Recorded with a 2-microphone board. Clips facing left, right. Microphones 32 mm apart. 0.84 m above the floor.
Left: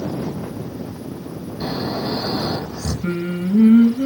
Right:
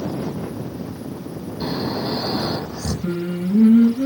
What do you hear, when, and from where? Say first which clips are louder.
1.6 s snoring: even; 10° right (ahead or behind), 4.5 m
3.0 s singing: left 2 dB; 50° left (ahead or behind), 3 m